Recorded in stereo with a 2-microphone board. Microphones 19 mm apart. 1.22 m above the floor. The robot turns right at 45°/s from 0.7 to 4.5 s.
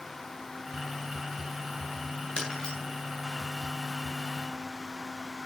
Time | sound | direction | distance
2.4 | breaking glass | 50° left (ahead or behind) | 9 m